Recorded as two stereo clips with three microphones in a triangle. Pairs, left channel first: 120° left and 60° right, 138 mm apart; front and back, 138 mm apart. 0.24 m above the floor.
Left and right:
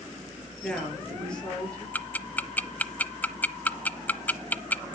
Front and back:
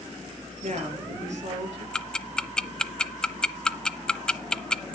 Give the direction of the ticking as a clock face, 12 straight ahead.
10 o'clock.